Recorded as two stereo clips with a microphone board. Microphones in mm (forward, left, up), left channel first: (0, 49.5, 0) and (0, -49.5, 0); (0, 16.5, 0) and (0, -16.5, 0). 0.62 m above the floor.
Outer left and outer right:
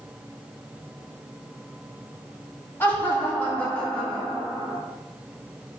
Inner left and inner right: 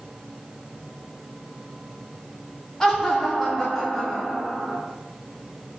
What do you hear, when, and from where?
2.8 s laughter: 20° left (ahead or behind), 1.1 m; by 4.8 s 5° left (ahead or behind), 1.4 m